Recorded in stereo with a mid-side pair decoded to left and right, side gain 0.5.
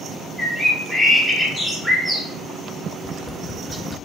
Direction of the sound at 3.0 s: 15° left.